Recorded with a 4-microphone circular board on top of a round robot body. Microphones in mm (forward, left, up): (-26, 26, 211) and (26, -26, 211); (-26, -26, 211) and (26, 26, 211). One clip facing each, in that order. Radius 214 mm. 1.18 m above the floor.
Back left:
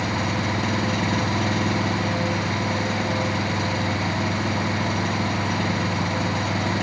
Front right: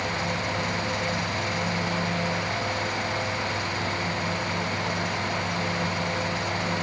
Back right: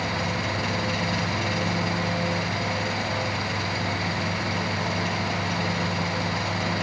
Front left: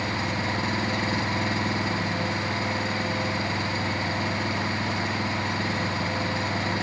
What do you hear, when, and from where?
0.0 s an engine running: 105° left